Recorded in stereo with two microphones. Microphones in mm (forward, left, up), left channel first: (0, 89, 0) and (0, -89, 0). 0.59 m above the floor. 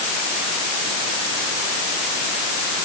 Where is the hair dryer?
No hair dryer in this recording.